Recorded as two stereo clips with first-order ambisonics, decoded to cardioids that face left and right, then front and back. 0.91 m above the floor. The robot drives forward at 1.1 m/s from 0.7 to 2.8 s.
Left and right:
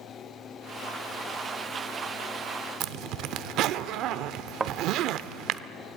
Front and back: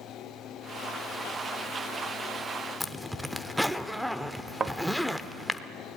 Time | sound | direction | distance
2.8 | a zipper | 95° right | 0.7 m
4.6 | a thud | 140° right | 0.6 m